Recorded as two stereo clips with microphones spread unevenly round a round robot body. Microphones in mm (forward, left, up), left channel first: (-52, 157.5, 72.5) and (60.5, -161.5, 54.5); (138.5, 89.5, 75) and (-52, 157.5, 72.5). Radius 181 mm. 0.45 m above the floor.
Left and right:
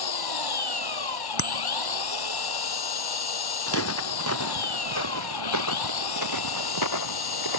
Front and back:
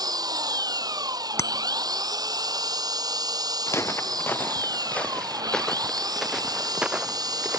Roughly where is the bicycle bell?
Ahead left.